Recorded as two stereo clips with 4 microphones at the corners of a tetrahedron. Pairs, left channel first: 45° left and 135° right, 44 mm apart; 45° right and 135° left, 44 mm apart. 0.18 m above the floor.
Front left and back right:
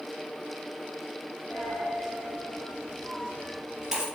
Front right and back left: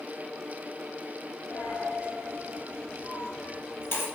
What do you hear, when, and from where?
1.5 s a dropped coin: 60° right, 1.5 m